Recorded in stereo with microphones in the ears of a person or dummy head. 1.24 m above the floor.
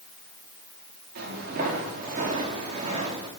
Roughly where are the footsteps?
Right.